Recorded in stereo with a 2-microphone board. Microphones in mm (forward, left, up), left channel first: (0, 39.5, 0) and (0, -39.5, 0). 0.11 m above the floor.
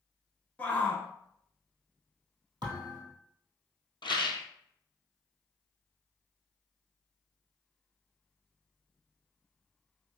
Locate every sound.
0.6 s a shout: 20° left (ahead or behind), 1.2 m
2.6 s a thud: 65° right (ahead or behind), 1.9 m
4.0 s a rattle: 70° left (ahead or behind), 0.9 m